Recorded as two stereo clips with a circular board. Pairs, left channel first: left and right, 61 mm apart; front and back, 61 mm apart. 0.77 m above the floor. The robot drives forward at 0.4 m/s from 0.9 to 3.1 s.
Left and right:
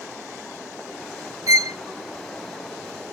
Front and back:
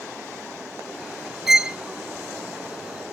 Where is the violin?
100° right; by 1.8 s 110° right.